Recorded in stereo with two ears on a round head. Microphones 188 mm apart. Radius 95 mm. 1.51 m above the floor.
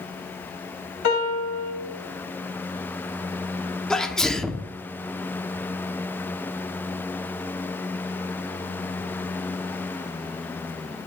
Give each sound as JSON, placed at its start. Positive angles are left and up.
{"t": 1.0, "sound": "a piano", "side_deg": 85, "distance_m": 2.5}
{"t": 3.9, "sound": "a sneeze", "side_deg": 5, "distance_m": 0.8}